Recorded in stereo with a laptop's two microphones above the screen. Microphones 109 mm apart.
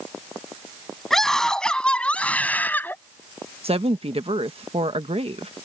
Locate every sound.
1.1 s a scream: 5° left (ahead or behind); by 3.0 s 20° left (ahead or behind)
3.6 s a woman speaking: 65° right (ahead or behind)